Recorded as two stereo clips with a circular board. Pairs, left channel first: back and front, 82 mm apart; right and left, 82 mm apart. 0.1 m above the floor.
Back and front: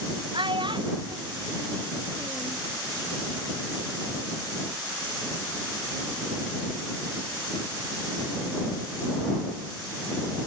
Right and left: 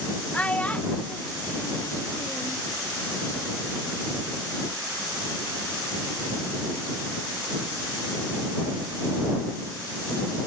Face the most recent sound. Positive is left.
turn(degrees=-25)